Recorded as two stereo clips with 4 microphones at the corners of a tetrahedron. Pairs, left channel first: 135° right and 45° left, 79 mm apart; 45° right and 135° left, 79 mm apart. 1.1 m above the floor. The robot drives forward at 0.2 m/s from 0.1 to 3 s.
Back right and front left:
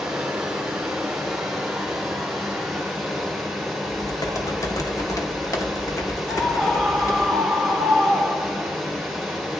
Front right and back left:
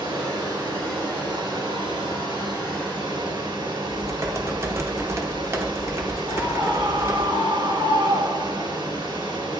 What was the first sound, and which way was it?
Running water, 125° left.